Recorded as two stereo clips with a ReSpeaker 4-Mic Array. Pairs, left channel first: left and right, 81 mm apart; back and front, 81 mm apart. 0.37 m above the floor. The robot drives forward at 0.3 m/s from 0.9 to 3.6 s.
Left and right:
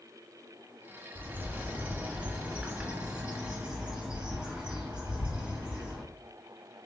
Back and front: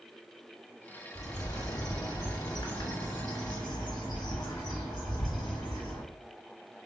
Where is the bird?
150° right, 0.7 m; by 6.0 s 165° right, 1.4 m.